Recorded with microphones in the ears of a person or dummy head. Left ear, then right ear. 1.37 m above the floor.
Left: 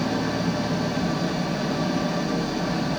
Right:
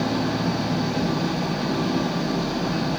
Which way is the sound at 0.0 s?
Centre (ahead or behind).